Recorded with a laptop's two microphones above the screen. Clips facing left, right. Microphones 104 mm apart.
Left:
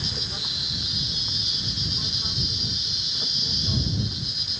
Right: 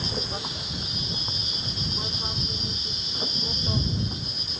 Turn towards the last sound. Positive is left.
turn(degrees=-35)  # may be behind; listen again after turning